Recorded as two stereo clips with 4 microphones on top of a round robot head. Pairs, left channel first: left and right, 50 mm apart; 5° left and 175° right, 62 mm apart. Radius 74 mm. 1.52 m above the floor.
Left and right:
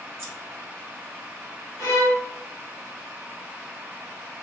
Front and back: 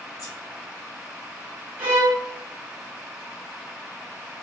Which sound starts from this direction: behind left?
A violin, at 1.8 s.